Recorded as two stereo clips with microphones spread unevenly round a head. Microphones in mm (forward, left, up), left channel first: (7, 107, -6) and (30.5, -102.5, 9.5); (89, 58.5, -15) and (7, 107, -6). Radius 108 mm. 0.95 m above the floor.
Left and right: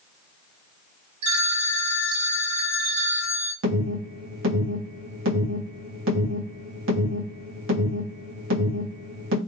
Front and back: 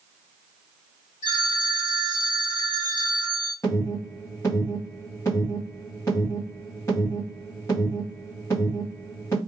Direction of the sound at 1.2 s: 75° right.